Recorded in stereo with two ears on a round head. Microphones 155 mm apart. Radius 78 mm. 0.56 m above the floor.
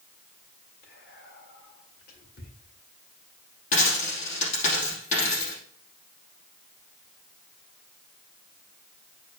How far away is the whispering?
About 2 m.